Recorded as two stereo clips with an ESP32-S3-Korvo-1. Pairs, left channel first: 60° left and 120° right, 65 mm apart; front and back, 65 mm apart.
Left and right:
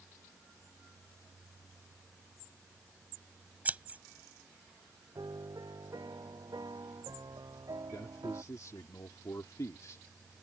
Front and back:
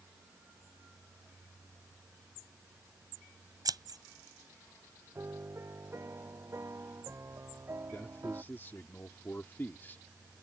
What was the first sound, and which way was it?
Scissors, 175° left.